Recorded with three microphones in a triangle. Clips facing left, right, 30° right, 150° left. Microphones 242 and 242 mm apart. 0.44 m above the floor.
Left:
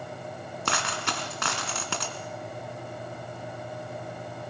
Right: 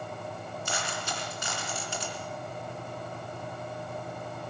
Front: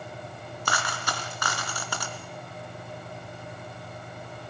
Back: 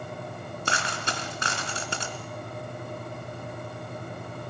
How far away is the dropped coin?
About 2.5 m.